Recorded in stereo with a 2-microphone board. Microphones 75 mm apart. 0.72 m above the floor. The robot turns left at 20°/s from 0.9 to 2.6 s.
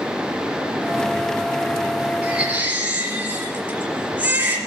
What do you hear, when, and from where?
2.2 s a baby crying: 10° right (ahead or behind), 4 m; by 4.6 s 20° right (ahead or behind), 4 m